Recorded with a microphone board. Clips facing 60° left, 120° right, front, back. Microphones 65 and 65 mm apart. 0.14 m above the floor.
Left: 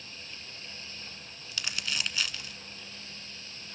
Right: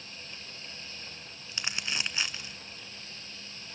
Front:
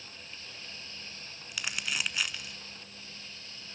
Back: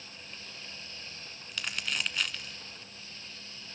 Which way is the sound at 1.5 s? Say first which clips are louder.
Even, even; 75° right.